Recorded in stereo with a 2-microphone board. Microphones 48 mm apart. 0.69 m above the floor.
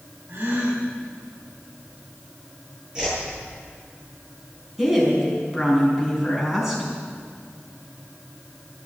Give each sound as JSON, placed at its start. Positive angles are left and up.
{"t": 0.3, "sound": "a gasp", "side_deg": -55, "distance_m": 4.0}
{"t": 3.0, "sound": "a whoosh", "side_deg": -15, "distance_m": 7.5}
{"t": 4.8, "sound": "a woman speaking", "side_deg": -5, "distance_m": 5.5}